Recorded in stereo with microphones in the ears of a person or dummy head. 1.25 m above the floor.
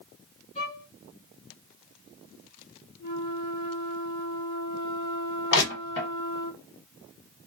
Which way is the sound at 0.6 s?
30° left (ahead or behind).